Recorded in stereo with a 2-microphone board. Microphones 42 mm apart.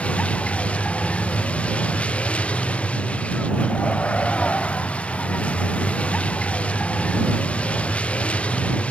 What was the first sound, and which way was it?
A vehicle, 30° left (ahead or behind).